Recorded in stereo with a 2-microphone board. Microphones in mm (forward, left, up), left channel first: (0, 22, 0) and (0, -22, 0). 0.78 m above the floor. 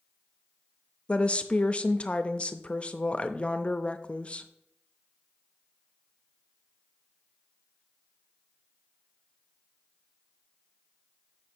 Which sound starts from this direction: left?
A woman speaking, at 1.1 s.